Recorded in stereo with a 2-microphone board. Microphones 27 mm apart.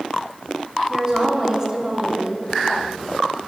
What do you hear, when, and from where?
0.9 s a woman speaking: 20° right (ahead or behind), 0.9 m